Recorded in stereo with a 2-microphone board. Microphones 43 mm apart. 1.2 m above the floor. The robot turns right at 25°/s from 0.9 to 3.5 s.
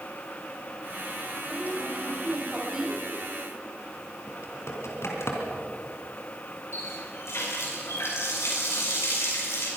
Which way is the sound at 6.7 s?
80° left.